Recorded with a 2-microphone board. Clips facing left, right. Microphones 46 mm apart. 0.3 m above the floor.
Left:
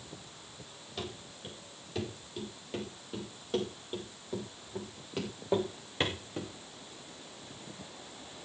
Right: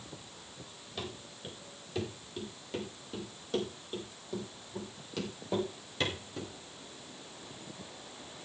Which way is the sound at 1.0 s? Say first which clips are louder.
Even; centre (ahead or behind).